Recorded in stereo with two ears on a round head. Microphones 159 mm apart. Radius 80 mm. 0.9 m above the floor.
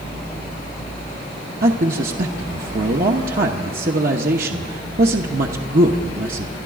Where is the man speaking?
55° right (ahead or behind), 0.9 m.